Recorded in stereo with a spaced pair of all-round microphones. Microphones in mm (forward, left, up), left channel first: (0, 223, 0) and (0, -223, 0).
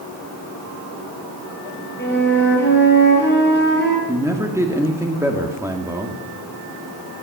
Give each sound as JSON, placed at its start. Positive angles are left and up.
{"t": 2.0, "sound": "a flute", "side_deg": 25, "distance_m": 3.5}
{"t": 4.1, "sound": "a man speaking", "side_deg": -5, "distance_m": 1.9}